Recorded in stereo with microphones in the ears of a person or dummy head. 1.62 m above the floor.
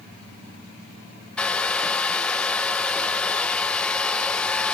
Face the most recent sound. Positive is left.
turn(degrees=5)  # may be behind; listen again after turning